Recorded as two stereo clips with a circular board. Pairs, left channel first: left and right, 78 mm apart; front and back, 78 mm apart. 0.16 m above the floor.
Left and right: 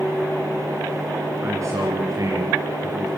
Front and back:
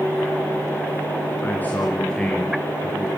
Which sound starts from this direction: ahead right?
A man speaking, at 1.4 s.